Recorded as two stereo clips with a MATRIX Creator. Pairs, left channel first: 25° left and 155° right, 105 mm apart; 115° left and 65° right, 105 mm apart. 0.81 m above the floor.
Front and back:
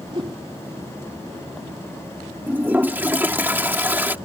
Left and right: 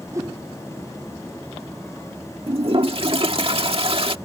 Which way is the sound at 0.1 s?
125° right.